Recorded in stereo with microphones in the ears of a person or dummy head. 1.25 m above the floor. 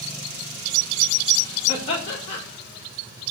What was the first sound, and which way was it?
Laughter, 40° left (ahead or behind).